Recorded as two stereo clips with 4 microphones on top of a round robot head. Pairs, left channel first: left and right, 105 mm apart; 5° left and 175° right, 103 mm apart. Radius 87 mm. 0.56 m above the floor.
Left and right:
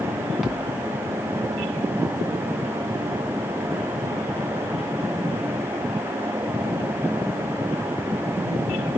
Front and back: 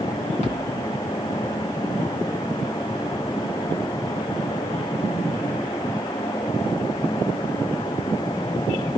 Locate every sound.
0.4 s a thud: straight ahead, 3 m